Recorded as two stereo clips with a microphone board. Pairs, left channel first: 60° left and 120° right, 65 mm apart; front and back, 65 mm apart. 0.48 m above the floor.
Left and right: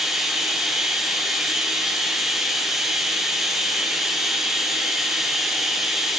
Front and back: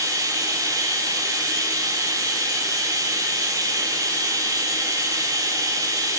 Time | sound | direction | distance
0.0 | running water | 155° left | 9.5 m